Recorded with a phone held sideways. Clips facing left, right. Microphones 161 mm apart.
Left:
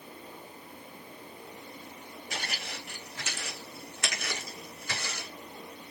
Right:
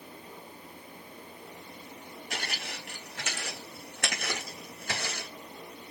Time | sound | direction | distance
2.3 | footsteps | 60° right (ahead or behind) | 4.5 m